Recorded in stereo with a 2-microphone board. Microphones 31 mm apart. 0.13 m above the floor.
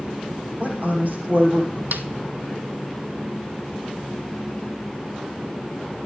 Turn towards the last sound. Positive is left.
turn(degrees=-80)